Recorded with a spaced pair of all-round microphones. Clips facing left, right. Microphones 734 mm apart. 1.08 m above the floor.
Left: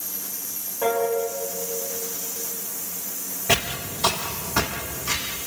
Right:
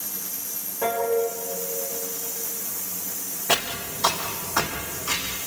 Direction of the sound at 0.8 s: Centre (ahead or behind).